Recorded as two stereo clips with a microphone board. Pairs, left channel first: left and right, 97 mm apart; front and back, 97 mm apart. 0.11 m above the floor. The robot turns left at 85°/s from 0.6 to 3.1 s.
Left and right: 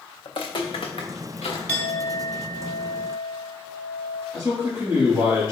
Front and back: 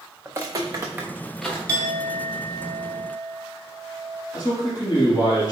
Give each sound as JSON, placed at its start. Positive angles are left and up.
{"t": 0.2, "sound": "footsteps", "azimuth_deg": 110, "distance_m": 0.7}
{"t": 1.7, "sound": "a clink", "azimuth_deg": 150, "distance_m": 0.9}
{"t": 4.3, "sound": "a man speaking", "azimuth_deg": -40, "distance_m": 1.9}